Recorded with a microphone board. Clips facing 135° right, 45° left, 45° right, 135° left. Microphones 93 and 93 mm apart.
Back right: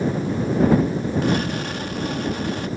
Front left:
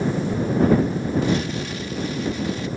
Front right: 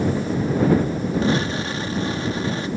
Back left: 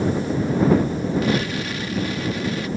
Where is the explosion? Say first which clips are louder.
Back right 1 dB, front right 1 dB; 105° right.